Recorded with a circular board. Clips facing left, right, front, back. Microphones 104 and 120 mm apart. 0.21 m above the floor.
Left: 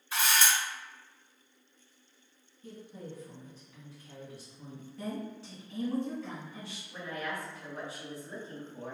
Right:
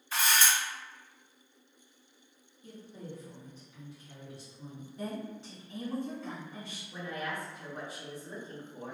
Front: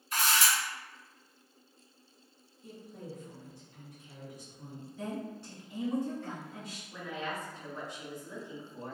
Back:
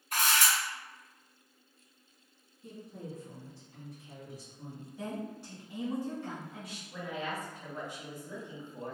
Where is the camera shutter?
170° left, 1.9 m.